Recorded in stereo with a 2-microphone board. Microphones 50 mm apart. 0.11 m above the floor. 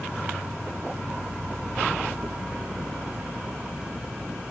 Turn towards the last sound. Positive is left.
turn(degrees=-15)  # may be behind; listen again after turning